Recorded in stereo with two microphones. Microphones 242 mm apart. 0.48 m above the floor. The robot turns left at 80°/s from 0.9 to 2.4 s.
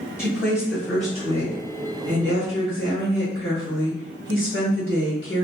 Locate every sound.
0.2 s a woman speaking: 10° left, 1.7 m; by 5.5 s 110° right, 1.7 m